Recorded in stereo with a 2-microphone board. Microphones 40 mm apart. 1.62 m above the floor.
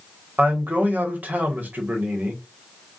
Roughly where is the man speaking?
Right.